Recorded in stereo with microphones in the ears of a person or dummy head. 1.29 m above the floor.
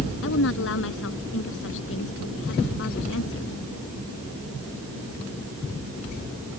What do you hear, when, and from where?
0.2 s a woman speaking: 75° left (ahead or behind)